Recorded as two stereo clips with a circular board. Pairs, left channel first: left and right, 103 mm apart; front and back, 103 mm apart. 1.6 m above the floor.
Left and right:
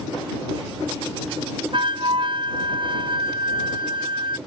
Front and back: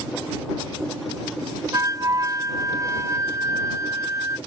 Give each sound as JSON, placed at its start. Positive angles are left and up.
{"t": 1.7, "sound": "a flute", "azimuth_deg": -125}